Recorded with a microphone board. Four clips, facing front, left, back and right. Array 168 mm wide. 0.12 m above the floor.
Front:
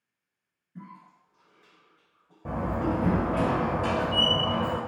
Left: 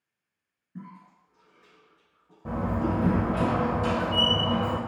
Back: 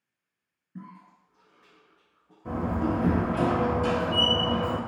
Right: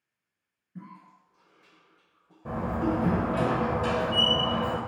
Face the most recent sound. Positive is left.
turn(degrees=20)